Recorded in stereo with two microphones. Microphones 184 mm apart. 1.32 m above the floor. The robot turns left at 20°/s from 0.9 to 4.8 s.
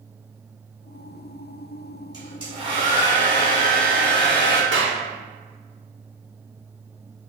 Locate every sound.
2.1 s a hair dryer: 20° right, 1.9 m; by 4.6 s 70° right, 1.9 m
4.7 s a clap: 85° right, 1.0 m